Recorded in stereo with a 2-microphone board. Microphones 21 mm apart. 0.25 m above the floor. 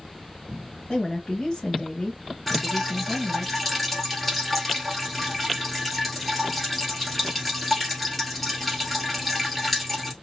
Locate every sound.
0.9 s a woman speaking: 30° left (ahead or behind), 1.0 m
2.5 s dripping: 5° left (ahead or behind), 1.6 m